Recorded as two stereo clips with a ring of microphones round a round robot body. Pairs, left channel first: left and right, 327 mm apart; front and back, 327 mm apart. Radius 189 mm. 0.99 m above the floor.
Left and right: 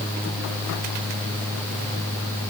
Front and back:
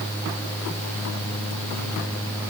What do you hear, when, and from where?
Only background noise.